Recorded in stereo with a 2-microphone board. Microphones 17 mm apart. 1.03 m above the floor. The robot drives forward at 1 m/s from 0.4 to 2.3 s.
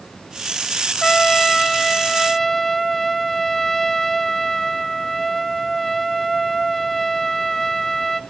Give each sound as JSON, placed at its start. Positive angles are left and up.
{"t": 1.0, "sound": "a trumpet", "side_deg": 20, "distance_m": 0.7}